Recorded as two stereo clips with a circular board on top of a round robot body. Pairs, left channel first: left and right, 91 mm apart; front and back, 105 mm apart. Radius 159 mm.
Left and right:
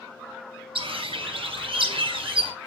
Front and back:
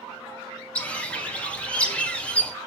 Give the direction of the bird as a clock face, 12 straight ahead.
3 o'clock.